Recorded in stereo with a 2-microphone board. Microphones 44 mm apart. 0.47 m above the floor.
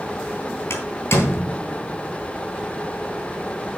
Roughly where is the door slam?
Left.